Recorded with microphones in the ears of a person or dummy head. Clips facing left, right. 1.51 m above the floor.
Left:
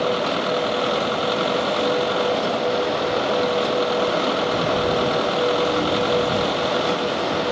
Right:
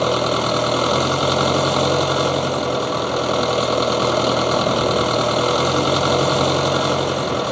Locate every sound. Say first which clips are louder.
0.0 s an engine running: right 3 dB; 60° right (ahead or behind)